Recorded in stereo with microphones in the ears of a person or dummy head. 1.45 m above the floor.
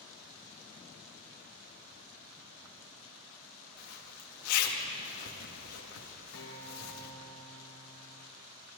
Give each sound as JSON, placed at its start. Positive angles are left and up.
{"t": 3.8, "sound": "a zipper", "side_deg": 75, "distance_m": 2.5}
{"t": 6.3, "sound": "a guitar", "side_deg": 55, "distance_m": 4.0}